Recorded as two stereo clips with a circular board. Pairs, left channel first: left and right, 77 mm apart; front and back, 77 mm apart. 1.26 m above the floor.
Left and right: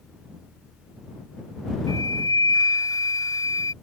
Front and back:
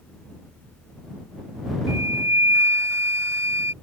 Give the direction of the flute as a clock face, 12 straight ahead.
8 o'clock.